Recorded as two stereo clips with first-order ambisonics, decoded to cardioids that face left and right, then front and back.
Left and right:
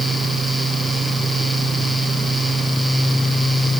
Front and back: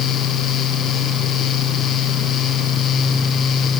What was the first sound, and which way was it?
Only background noise.